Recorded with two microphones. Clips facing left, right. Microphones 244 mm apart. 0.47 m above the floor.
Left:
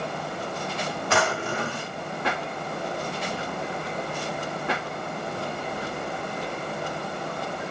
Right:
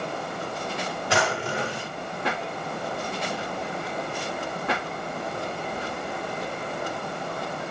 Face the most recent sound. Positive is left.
turn(degrees=-15)  # may be behind; listen again after turning